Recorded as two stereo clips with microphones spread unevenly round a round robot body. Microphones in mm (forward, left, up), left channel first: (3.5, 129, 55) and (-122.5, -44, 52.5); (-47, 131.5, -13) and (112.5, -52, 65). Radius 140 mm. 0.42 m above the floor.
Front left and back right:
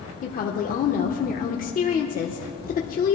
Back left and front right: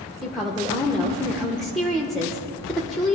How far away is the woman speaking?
About 0.9 m.